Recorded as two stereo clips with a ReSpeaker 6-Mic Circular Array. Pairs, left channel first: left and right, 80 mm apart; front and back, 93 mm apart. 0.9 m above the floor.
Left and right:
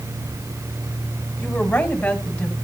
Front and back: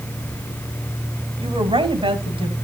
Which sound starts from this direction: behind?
A woman speaking, at 1.4 s.